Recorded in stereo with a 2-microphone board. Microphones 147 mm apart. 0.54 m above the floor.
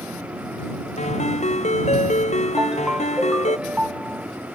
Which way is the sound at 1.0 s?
50° left (ahead or behind).